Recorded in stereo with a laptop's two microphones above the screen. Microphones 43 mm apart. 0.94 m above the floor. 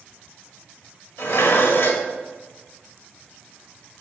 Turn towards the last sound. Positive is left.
turn(degrees=70)  # may be behind; listen again after turning